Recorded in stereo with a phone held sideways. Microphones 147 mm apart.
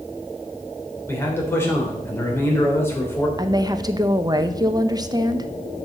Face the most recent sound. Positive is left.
turn(degrees=-25)  # may be behind; listen again after turning